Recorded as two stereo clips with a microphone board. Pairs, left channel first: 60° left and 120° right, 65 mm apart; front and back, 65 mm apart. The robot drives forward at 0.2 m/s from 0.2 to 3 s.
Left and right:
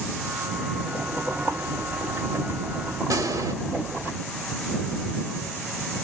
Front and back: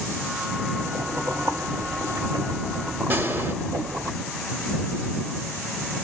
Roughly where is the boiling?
Behind.